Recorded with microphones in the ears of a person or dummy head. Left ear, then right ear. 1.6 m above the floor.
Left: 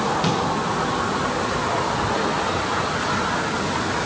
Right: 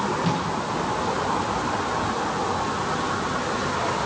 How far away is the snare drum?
About 7.5 m.